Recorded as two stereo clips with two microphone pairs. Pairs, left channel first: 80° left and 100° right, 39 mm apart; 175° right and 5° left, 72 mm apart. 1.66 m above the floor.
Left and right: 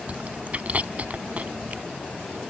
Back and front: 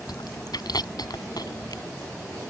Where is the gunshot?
I don't hear a gunshot.